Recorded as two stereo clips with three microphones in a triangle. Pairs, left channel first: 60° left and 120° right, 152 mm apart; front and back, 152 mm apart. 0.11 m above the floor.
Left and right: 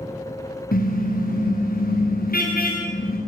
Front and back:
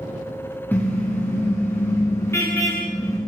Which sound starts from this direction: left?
A car horn, at 0.7 s.